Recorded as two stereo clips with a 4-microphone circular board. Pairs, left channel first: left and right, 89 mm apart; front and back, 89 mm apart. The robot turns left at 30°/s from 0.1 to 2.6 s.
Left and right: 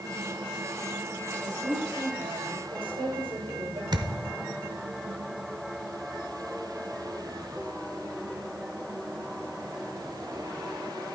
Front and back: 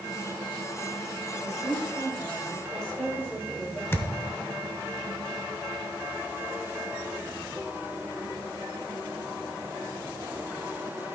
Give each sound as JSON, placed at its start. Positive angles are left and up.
{"t": 1.3, "sound": "a woman speaking", "azimuth_deg": -40, "distance_m": 4.0}
{"t": 3.9, "sound": "a thud", "azimuth_deg": -60, "distance_m": 0.8}